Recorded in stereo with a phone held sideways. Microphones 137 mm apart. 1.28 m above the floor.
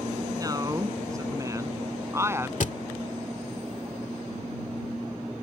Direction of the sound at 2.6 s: 70° left (ahead or behind).